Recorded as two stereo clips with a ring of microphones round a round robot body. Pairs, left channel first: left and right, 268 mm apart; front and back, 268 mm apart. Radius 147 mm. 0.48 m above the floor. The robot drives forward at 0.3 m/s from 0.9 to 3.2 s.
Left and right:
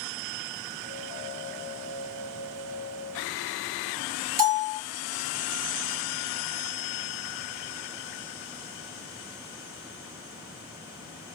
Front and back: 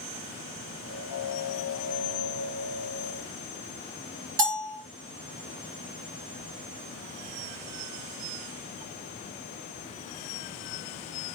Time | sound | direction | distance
4.4 | a bell | 145° right | 3 m